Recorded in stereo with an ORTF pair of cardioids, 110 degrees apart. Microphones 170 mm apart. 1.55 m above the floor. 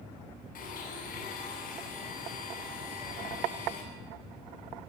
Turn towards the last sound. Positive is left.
turn(degrees=55)